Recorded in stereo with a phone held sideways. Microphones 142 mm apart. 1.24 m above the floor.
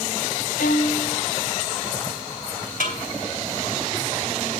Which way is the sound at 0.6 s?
80° left.